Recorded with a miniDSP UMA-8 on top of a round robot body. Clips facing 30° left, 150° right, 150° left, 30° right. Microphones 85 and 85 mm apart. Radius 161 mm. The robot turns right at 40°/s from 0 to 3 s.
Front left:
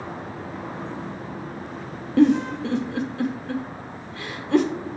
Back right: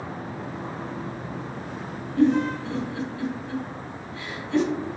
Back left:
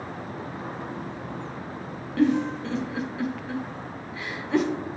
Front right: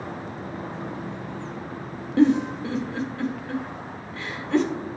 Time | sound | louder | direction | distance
2.2 | a giggle | front left 3 dB, front right 3 dB | 35° left | 0.8 m